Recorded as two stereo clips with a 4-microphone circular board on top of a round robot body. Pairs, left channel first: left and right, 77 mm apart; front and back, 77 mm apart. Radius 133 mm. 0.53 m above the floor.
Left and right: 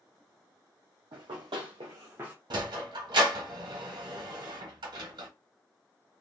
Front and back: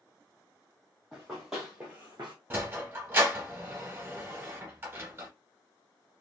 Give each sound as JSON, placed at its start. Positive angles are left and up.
{"t": 1.1, "sound": "running footsteps", "azimuth_deg": -90, "distance_m": 1.6}
{"t": 2.5, "sound": "a sliding door", "azimuth_deg": -110, "distance_m": 1.0}